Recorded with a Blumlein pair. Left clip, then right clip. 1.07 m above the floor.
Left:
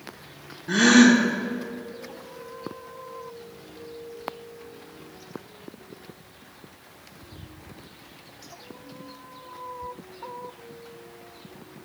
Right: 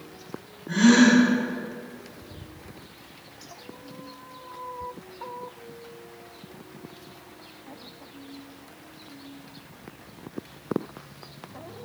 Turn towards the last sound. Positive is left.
turn(degrees=60)